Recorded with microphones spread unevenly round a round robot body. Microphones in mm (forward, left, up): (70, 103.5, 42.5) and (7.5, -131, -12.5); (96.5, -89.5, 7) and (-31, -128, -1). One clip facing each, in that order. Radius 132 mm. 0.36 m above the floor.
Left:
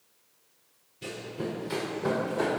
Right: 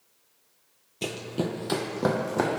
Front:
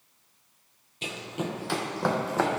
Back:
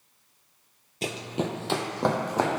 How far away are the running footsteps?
About 0.6 m.